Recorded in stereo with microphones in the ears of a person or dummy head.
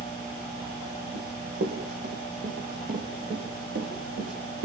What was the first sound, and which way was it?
Running footsteps, 60° right (ahead or behind).